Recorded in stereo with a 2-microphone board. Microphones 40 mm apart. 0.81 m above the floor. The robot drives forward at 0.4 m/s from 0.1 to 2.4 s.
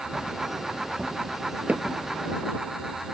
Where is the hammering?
30° right (ahead or behind).